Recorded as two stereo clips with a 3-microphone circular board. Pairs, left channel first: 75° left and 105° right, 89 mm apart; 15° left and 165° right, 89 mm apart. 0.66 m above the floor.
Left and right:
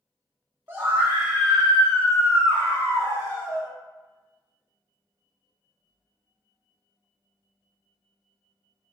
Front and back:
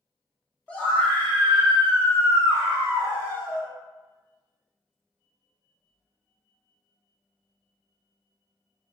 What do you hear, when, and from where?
0.7 s a scream: 55° right, 1.5 m; by 3.7 s 60° left, 1.6 m